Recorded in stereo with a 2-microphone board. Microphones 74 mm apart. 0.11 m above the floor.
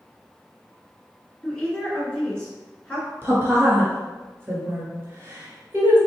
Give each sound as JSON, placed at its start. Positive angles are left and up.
{"t": 1.4, "sound": "a woman speaking", "side_deg": 10, "distance_m": 1.2}
{"t": 3.2, "sound": "a woman speaking", "side_deg": -30, "distance_m": 1.5}